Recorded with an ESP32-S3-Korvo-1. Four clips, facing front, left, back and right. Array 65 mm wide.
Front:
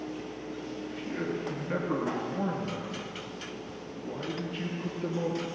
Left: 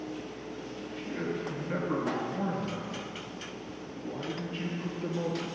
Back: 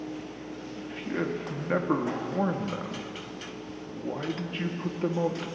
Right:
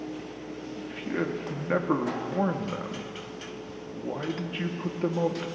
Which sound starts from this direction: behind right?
A man speaking, at 0.8 s.